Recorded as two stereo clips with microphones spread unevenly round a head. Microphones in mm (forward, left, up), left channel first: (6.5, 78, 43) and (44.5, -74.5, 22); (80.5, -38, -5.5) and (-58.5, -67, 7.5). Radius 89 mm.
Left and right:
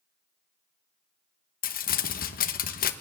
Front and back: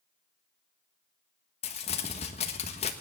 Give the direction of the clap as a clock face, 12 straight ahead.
I don't hear a clap.